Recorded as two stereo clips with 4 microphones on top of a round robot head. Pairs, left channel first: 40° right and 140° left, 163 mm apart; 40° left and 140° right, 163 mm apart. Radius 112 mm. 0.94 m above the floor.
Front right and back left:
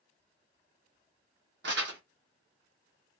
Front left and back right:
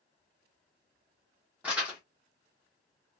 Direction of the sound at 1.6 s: 140° left.